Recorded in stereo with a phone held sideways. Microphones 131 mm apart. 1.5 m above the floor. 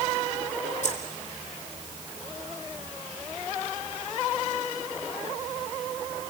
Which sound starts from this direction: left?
Keys jangling, at 0.8 s.